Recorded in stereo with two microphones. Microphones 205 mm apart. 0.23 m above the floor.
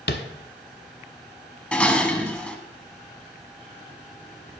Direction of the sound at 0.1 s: 60° left (ahead or behind).